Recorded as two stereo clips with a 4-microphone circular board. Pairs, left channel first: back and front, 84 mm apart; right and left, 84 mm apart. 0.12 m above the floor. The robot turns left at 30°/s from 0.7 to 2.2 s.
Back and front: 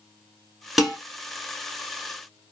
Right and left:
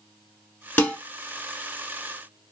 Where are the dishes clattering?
80° right, 0.9 m; by 1.0 s 90° right, 0.9 m.